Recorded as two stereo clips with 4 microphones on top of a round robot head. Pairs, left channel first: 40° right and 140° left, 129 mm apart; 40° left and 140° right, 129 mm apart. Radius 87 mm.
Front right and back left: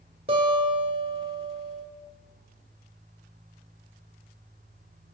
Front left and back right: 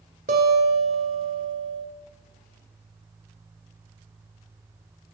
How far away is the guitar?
About 1.6 m.